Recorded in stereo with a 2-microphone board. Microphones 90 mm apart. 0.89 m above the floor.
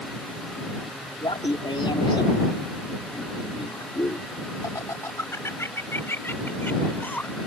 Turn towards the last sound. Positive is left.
turn(degrees=20)  # may be behind; listen again after turning